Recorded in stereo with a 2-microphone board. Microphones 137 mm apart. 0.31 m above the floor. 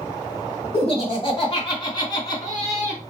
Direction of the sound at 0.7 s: 45° left (ahead or behind).